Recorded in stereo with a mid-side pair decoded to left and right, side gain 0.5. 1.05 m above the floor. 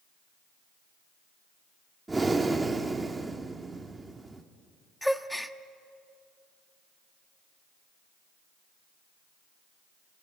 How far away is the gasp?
About 1.1 m.